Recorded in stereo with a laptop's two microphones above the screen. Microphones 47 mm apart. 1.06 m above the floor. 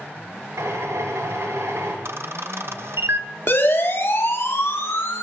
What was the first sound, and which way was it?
A drill, 85° right.